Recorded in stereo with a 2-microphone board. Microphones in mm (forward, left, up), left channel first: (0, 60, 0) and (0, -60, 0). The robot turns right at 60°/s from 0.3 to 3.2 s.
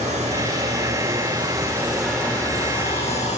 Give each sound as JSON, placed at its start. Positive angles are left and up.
{"t": 0.0, "sound": "running water", "azimuth_deg": -105, "distance_m": 3.0}